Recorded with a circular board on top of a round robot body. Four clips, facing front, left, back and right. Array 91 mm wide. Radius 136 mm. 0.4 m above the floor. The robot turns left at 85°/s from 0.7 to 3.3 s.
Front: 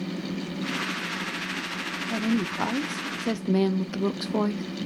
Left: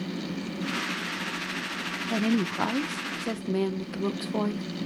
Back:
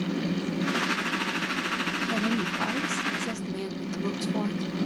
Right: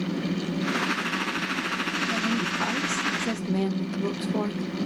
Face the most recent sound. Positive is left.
turn(degrees=10)